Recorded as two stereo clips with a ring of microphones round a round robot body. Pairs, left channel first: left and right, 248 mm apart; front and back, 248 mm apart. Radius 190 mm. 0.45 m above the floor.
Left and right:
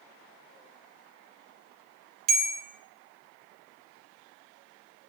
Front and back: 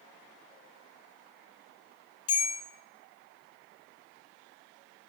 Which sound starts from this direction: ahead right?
A bell, at 2.3 s.